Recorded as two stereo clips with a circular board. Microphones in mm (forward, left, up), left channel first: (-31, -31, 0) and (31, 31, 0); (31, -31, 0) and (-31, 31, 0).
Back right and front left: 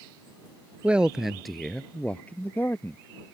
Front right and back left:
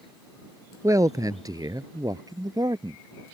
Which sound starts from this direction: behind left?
A man speaking, at 0.8 s.